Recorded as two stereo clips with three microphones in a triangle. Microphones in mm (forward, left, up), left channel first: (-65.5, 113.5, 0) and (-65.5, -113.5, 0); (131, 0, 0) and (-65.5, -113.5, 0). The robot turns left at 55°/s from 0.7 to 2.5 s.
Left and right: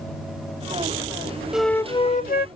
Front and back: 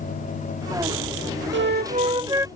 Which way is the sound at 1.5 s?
175° right.